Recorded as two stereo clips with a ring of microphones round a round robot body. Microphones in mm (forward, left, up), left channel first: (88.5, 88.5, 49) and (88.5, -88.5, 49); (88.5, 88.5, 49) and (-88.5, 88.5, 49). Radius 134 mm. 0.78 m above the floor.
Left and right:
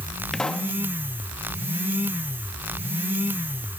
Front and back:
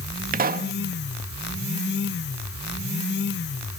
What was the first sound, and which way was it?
A pop, 175° left.